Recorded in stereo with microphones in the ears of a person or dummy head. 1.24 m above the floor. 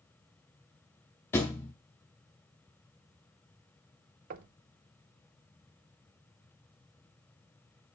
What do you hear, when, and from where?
1.3 s a thud: 10° left (ahead or behind), 0.8 m
4.3 s knocking: 50° right (ahead or behind), 0.7 m